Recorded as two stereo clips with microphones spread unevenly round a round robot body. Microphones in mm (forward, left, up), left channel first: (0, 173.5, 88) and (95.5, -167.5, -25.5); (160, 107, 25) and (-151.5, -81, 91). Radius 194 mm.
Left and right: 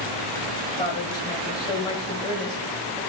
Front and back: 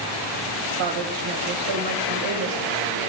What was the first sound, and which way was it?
A woman speaking, 170° right.